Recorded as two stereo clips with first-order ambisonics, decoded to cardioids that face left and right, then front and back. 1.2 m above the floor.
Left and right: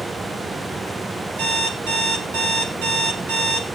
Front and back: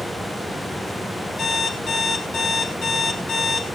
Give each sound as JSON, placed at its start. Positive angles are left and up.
{"t": 1.4, "sound": "an alarm clock", "azimuth_deg": -75, "distance_m": 5.0}